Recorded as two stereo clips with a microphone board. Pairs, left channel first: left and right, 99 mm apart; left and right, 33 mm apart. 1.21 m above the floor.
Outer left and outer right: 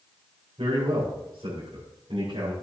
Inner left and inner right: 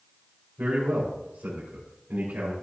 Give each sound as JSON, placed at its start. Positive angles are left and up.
{"t": 0.6, "sound": "a man speaking", "side_deg": -85, "distance_m": 4.5}